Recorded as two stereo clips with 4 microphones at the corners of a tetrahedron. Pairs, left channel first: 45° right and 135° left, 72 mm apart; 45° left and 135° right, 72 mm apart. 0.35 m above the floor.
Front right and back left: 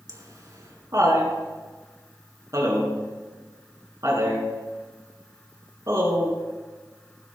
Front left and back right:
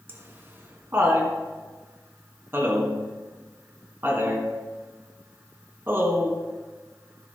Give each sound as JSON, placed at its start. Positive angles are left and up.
{"t": 0.1, "sound": "laughter", "azimuth_deg": 170, "distance_m": 3.5}